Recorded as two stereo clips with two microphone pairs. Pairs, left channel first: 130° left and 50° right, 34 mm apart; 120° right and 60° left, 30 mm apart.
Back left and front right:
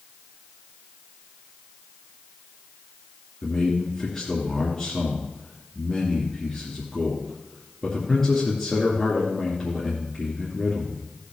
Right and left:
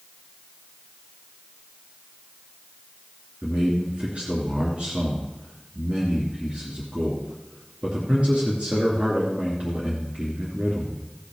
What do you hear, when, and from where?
3.4 s a man speaking: 65° left, 2.5 m